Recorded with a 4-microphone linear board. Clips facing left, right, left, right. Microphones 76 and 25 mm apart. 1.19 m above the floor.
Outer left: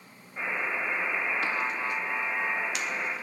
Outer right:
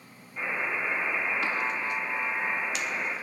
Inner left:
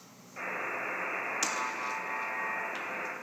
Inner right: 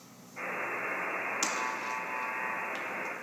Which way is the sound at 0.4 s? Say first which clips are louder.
Even, even; 45° left (ahead or behind).